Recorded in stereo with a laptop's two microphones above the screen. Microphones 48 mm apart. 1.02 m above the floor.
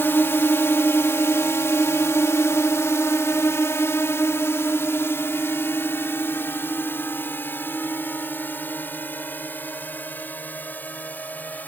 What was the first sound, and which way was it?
A drone, 50° left (ahead or behind).